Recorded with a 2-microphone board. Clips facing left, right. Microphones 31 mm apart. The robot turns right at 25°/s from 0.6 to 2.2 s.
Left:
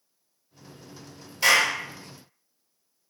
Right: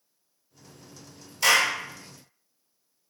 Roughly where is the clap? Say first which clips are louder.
Left 1 dB; centre.